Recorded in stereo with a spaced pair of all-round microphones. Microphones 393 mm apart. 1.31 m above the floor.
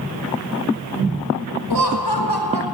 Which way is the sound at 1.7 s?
85° left.